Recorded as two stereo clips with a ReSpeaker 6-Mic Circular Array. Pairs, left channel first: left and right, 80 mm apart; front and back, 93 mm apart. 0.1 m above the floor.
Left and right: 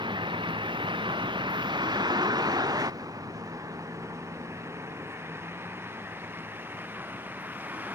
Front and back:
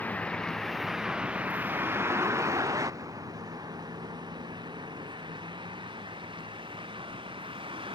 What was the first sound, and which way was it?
A vehicle, 75° right.